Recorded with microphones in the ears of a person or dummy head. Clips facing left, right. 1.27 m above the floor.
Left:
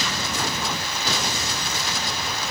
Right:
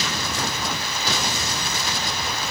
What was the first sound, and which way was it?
Only background noise.